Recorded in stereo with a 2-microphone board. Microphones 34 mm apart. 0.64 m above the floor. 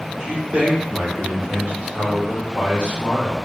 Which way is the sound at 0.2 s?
60° right (ahead or behind).